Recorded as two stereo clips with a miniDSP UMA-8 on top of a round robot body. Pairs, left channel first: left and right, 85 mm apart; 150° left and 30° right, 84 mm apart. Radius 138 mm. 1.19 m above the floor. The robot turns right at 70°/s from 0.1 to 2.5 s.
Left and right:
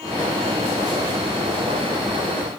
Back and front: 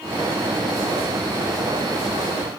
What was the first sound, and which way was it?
Only background noise.